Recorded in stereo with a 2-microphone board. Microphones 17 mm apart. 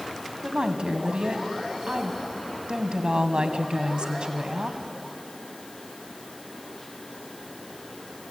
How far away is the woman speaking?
About 2.0 m.